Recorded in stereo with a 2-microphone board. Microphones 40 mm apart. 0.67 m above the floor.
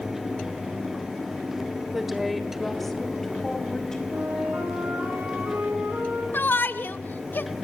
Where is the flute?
60° right (ahead or behind), 8 m.